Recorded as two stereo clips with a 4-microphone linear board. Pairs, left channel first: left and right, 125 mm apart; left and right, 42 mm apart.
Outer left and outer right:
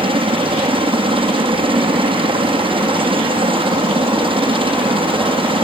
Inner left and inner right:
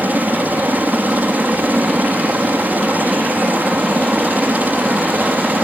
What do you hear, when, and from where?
0.0 s a helicopter: 45° right (ahead or behind)